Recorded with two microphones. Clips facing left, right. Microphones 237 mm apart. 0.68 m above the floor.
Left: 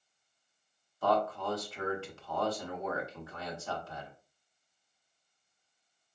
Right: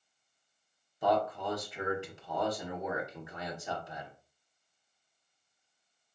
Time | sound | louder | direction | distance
1.0 | a man speaking | even | 20° right (ahead or behind) | 1.5 m